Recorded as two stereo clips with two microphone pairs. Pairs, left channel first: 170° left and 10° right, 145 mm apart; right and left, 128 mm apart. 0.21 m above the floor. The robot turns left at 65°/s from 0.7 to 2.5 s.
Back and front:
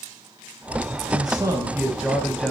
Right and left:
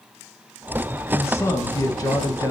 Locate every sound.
1.1 s a man speaking: 30° right, 1.1 m; by 2.5 s 120° right, 1.1 m